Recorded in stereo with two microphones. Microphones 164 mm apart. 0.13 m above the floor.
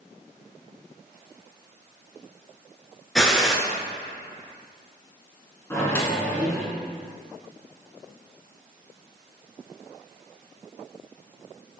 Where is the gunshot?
5° left (ahead or behind), 0.8 m.